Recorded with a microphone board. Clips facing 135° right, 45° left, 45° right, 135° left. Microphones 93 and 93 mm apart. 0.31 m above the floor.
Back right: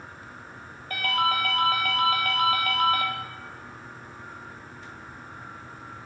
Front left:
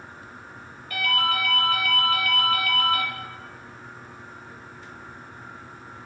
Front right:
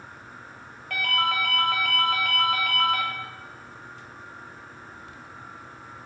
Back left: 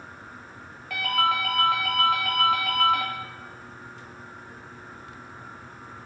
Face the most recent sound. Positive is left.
turn(degrees=-140)